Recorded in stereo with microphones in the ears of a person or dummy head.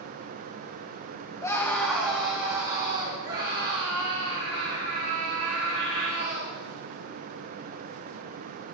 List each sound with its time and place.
1.4 s a scream: 20° left (ahead or behind), 1.2 m; by 6.5 s 75° right (ahead or behind), 6 m